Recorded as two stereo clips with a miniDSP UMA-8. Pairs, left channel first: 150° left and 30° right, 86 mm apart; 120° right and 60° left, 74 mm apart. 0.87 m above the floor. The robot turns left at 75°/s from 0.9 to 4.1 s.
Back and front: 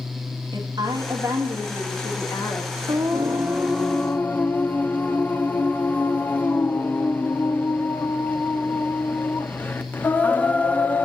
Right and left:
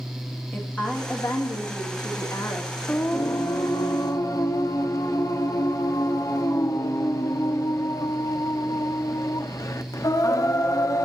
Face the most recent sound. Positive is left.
turn(degrees=-145)